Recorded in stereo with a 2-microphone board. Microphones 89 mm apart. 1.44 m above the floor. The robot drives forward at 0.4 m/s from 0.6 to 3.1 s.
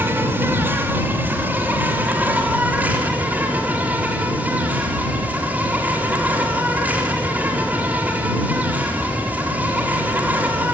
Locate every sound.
0.0 s an insect: 25° right (ahead or behind), 3 m; by 10.7 s 15° right (ahead or behind), 4 m